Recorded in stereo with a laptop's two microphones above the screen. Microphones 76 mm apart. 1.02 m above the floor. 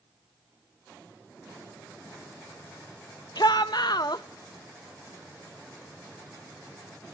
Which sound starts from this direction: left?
A shout, at 3.4 s.